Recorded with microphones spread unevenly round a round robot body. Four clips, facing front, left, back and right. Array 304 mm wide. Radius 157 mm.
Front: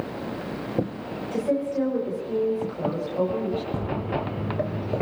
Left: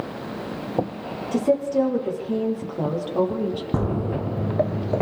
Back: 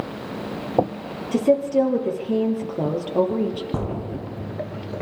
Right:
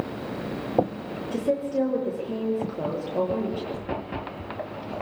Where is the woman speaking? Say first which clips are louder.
Left 5 dB, back 7 dB; 150° left, 9.5 m; by 3.6 s 160° left, 9.5 m.